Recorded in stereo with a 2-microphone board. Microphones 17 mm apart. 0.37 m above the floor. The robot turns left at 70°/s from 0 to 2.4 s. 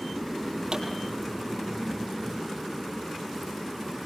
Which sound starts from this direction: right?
A pop, at 0.7 s.